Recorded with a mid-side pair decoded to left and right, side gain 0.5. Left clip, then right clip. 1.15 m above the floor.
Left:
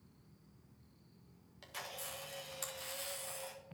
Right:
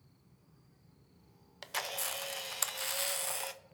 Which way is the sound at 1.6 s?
65° right.